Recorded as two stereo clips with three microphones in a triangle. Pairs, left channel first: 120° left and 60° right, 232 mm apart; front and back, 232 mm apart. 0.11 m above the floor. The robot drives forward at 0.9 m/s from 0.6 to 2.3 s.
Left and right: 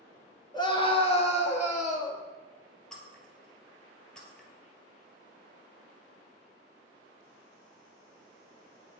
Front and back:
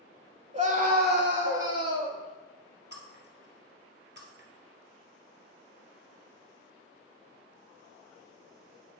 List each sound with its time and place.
0.5 s a scream: 170° left, 1.3 m; by 2.2 s 175° left, 2.5 m
2.9 s breaking glass: 155° right, 1.6 m